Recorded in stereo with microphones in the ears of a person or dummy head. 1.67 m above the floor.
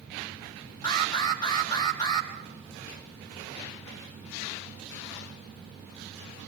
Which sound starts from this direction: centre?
An alarm, at 0.8 s.